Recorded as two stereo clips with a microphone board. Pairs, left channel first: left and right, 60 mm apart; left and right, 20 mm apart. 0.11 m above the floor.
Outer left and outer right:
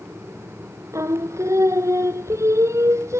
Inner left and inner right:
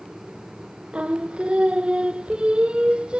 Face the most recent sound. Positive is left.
turn(degrees=-55)  # may be behind; listen again after turning